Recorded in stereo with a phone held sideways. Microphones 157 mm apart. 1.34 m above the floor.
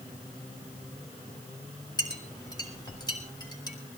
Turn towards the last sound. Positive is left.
turn(degrees=25)  # may be behind; listen again after turning